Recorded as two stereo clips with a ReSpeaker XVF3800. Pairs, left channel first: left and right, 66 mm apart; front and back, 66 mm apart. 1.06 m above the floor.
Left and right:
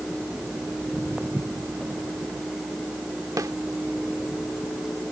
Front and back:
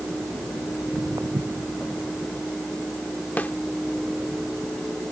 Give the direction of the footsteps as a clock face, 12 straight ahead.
5 o'clock.